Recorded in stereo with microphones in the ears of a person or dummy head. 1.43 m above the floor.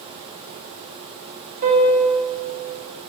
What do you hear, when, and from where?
1.6 s a piano: 45° right (ahead or behind), 7 m